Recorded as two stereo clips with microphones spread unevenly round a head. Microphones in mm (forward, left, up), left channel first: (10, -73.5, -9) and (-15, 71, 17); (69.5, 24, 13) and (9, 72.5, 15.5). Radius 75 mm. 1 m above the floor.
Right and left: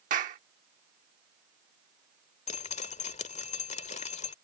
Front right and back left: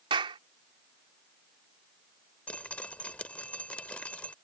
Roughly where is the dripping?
Right.